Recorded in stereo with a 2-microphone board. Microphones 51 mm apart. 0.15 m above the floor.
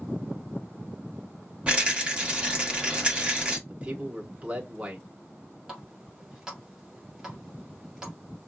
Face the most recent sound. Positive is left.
turn(degrees=-10)  # may be behind; listen again after turning